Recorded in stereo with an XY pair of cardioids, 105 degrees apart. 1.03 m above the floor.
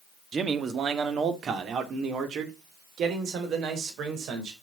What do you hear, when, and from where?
0.3 s a man speaking: 40° right, 1.6 m; by 4.5 s 75° right, 4 m